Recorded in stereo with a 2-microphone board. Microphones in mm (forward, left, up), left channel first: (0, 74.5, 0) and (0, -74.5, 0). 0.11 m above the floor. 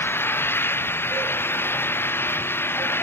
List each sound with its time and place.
0.0 s an engine running: 15° left (ahead or behind)